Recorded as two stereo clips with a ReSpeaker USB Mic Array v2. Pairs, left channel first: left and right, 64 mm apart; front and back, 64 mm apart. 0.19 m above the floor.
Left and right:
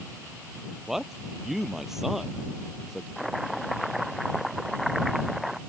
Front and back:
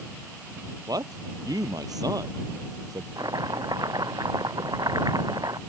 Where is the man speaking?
175° right.